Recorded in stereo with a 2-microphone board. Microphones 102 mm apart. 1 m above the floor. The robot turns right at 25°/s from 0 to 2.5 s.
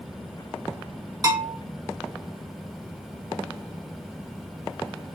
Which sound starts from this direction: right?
A bell, at 1.2 s.